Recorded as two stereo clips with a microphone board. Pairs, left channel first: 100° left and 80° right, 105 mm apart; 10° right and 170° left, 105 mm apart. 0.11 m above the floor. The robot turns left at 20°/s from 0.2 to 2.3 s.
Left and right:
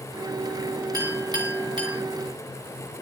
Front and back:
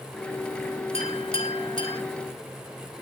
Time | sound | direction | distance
0.9 | a clink | 25° right | 8 m